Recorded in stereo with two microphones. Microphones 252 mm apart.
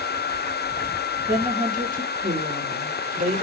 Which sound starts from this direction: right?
A woman speaking, at 1.3 s.